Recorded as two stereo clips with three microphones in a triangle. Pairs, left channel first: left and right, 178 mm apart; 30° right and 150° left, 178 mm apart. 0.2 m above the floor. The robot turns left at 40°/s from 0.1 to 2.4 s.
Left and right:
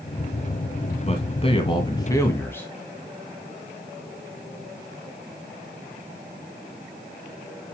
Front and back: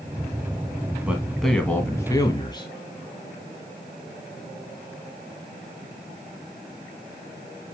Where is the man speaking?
70° left, 1.9 m; by 2.7 s 20° left, 1.9 m.